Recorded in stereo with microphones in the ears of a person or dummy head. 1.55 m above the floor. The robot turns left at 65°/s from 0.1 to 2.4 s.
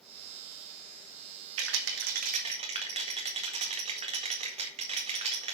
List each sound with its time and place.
1.6 s a rattle: 75° right (ahead or behind), 1.8 m; by 5.5 s 35° right (ahead or behind), 1.8 m